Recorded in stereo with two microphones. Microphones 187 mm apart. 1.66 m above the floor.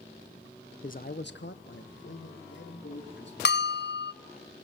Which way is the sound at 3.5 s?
65° left (ahead or behind).